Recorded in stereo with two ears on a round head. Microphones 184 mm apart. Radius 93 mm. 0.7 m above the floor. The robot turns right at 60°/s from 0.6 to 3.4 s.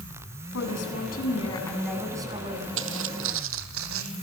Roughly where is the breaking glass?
No breaking glass in this recording.